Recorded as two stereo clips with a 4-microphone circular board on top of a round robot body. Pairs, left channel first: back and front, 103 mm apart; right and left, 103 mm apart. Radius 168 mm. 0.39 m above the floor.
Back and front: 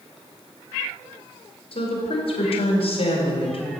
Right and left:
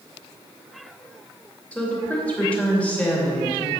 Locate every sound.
1.7 s a woman speaking: 170° right, 2.5 m